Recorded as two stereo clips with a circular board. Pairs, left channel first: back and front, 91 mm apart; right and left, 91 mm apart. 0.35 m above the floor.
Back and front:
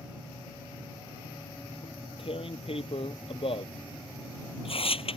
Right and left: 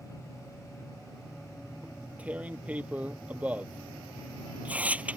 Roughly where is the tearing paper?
Behind.